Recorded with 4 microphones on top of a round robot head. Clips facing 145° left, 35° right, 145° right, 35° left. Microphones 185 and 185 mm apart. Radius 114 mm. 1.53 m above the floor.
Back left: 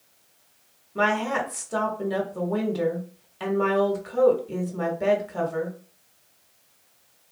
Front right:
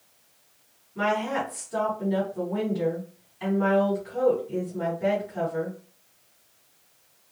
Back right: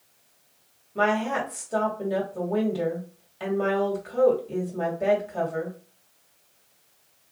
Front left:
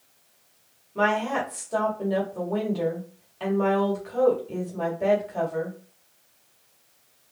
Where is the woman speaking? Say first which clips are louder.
Back left 2 dB, even; 135° left, 1.4 m.